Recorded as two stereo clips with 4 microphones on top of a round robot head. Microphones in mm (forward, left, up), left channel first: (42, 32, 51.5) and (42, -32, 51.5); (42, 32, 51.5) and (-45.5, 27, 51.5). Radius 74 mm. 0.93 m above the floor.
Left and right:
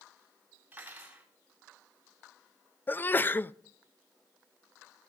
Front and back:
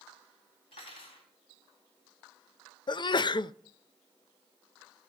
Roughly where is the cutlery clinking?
Ahead right.